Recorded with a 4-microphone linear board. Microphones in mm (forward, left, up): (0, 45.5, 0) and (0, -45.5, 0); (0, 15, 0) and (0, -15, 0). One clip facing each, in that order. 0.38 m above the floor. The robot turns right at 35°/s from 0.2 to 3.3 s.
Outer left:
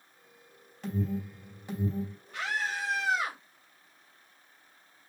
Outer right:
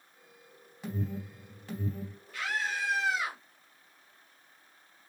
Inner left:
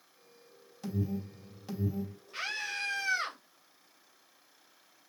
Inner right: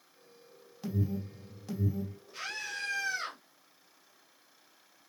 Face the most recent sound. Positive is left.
turn(degrees=100)